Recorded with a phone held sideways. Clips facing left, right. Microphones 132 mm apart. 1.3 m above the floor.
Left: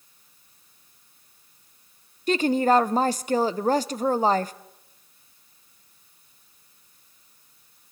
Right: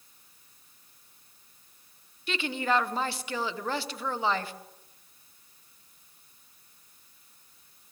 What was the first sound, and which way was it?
A woman speaking, 40° left (ahead or behind).